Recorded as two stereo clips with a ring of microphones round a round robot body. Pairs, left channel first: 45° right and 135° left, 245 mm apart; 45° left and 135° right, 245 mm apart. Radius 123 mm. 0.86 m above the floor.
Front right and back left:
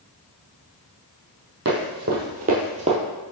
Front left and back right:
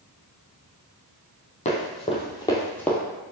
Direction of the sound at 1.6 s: 100° left.